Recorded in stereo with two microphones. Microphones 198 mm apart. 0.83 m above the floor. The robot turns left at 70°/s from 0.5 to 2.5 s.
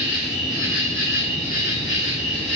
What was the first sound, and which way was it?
An insect, 155° right.